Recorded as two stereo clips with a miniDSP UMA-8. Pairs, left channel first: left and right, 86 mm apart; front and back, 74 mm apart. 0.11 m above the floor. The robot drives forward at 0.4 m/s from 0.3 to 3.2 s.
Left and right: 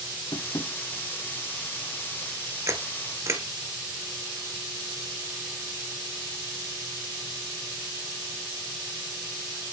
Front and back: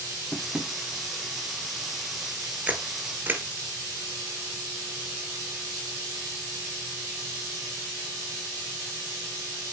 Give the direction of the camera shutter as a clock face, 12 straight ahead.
4 o'clock.